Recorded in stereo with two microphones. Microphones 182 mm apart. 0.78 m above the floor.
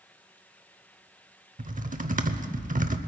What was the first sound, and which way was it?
Typing on a keyboard, 45° right (ahead or behind).